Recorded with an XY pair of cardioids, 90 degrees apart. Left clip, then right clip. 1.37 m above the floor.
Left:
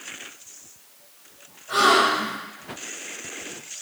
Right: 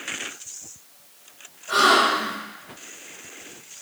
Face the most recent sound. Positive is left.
turn(degrees=-40)